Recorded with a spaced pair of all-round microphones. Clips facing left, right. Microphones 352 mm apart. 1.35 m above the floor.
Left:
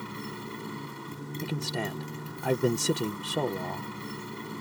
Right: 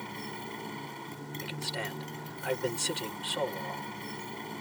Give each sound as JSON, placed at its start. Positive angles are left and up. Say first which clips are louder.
{"t": 0.0, "sound": "a motorcycle", "louder": "left 3 dB", "side_deg": 15}
{"t": 1.4, "sound": "a man speaking", "louder": "left 8 dB", "side_deg": 60}